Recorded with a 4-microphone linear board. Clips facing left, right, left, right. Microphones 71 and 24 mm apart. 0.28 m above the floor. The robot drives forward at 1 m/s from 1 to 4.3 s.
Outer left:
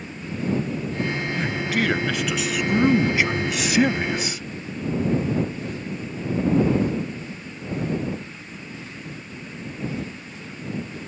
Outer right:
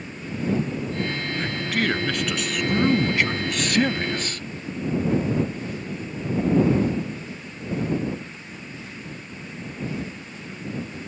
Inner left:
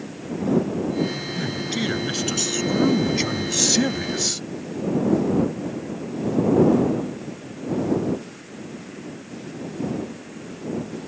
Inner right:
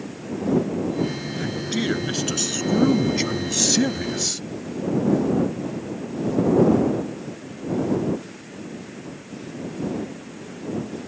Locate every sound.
1.4 s a man speaking: 5° left (ahead or behind); by 4.4 s 10° left (ahead or behind)